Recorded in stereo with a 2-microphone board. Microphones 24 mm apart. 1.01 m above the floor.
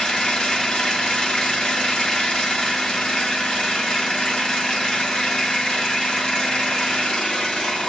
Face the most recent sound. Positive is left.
turn(degrees=30)  # may be behind; listen again after turning